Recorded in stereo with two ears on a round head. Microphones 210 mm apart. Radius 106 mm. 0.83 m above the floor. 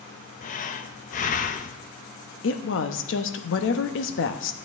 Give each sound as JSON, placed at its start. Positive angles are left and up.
{"t": 0.4, "sound": "breathing", "side_deg": 35, "distance_m": 0.6}
{"t": 2.4, "sound": "a woman speaking", "side_deg": 60, "distance_m": 0.9}